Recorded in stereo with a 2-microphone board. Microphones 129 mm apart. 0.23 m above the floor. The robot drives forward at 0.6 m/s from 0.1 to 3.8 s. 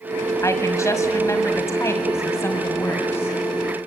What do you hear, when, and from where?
0.4 s a woman speaking: 25° left (ahead or behind), 1.6 m; by 3.4 s 15° left (ahead or behind), 2 m